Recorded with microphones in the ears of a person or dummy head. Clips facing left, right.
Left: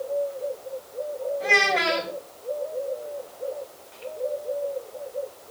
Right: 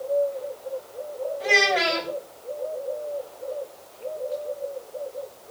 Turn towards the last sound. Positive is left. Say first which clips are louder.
# right 3 dB
turn(degrees=-10)  # may be behind; listen again after turning